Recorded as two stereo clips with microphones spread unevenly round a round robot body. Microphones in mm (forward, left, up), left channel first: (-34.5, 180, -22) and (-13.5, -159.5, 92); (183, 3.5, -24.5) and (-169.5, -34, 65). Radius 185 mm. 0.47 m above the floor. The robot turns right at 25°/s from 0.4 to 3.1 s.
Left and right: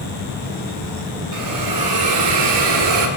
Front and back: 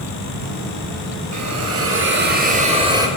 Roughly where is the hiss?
Behind right.